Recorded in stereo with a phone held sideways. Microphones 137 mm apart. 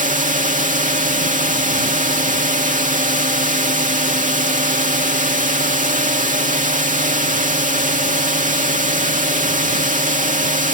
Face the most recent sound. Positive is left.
turn(degrees=-70)  # may be behind; listen again after turning